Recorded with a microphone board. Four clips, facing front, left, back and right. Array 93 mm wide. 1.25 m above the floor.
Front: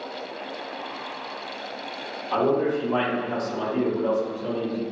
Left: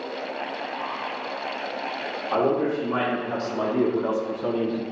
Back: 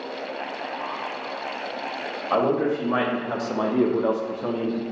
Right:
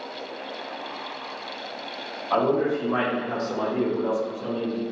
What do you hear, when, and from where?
2.3 s a man speaking: 160° right, 1.6 m; by 4.8 s 120° left, 0.7 m